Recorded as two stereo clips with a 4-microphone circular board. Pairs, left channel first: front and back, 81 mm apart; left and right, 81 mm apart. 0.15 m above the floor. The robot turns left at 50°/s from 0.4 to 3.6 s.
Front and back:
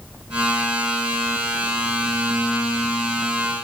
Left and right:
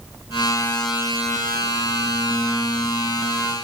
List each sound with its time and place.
Only background noise.